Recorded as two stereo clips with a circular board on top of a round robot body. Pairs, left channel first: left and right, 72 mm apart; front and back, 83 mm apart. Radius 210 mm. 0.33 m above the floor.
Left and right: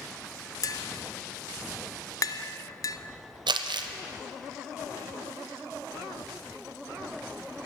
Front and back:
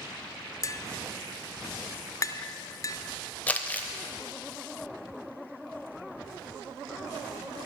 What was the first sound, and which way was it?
Tapping, 50° left.